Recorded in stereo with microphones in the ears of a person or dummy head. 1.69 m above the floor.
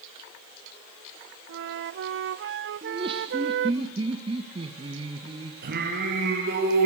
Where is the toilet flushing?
I don't hear a toilet flushing.